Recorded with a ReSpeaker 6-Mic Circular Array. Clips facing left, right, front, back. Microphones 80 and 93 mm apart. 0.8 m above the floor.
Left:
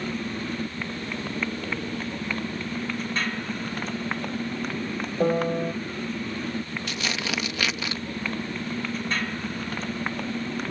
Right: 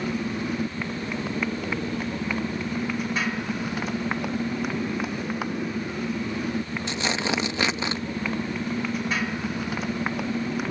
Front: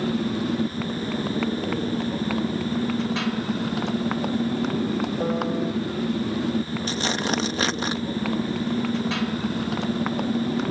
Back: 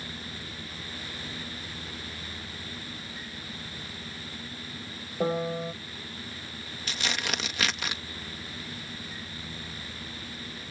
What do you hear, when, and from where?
0.0 s a motorcycle: 10° right
5.2 s a piano: 90° left
6.9 s tearing paper: 40° right